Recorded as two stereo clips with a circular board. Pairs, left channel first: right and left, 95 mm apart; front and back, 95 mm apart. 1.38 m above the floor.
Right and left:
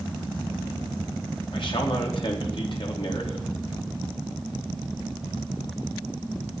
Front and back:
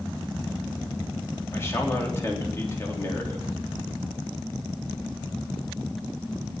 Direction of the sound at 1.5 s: 60° right.